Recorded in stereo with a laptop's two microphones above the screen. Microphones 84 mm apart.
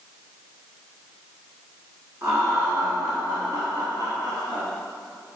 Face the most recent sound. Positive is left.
turn(degrees=-60)  # may be behind; listen again after turning